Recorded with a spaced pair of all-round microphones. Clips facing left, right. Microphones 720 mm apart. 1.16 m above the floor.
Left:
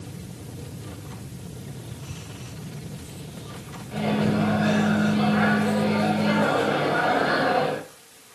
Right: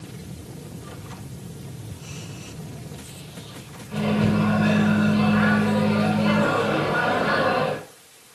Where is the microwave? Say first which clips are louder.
Right 2 dB; 30° right (ahead or behind), 4.5 m.